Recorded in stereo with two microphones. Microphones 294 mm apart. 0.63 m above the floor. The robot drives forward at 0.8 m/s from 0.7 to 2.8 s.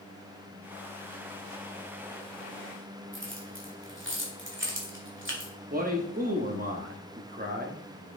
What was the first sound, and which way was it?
Keys jangling, 40° right (ahead or behind).